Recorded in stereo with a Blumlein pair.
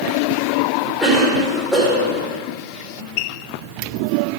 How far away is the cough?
About 4 m.